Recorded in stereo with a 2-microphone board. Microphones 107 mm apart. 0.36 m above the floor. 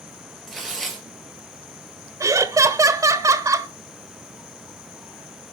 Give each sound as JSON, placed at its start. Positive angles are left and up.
{"t": 0.5, "sound": "tearing paper", "side_deg": 5, "distance_m": 3.5}
{"t": 2.2, "sound": "laughter", "side_deg": -30, "distance_m": 1.1}